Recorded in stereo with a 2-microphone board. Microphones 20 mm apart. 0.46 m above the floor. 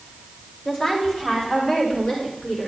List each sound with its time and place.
0.7 s a woman speaking: 25° left (ahead or behind), 2 m; by 2.7 s 55° left (ahead or behind), 5 m